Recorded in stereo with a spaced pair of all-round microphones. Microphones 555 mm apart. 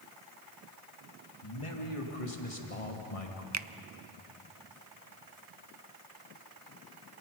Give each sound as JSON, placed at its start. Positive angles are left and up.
{"t": 1.4, "sound": "a man speaking", "side_deg": 60, "distance_m": 3.0}
{"t": 3.5, "sound": "a finger snap", "side_deg": -30, "distance_m": 0.5}